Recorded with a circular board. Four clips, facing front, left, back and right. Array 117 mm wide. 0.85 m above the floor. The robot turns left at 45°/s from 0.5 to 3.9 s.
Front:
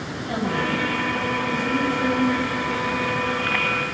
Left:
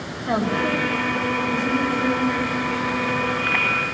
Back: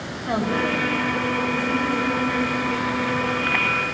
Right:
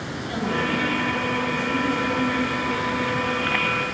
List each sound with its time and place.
0.2 s a woman speaking: 115° left, 4.5 m; by 2.3 s 35° left, 4.5 m